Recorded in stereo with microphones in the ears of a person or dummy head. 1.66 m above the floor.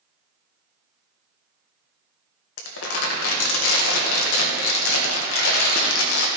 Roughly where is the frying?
No frying in this recording.